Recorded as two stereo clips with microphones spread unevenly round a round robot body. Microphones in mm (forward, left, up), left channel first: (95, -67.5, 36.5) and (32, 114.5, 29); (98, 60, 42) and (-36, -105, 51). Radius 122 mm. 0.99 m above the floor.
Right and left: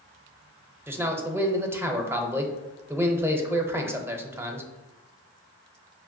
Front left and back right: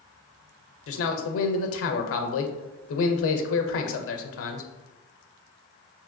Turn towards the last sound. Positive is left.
turn(degrees=30)